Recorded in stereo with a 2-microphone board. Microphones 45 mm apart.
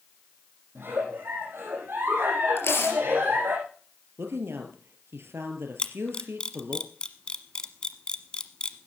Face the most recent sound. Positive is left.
turn(degrees=25)  # may be behind; listen again after turning